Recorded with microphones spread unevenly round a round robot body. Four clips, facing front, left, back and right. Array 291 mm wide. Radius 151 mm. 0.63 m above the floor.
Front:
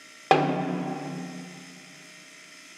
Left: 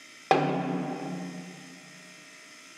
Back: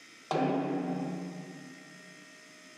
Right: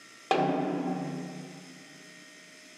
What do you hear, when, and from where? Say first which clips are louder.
0.3 s a snare drum: left 2 dB, front 7 dB; 25° left, 1.3 m